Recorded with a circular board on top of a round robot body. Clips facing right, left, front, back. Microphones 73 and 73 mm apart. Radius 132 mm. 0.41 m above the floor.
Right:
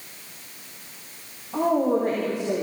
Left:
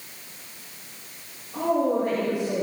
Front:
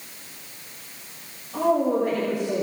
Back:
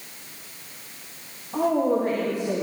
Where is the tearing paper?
I don't hear tearing paper.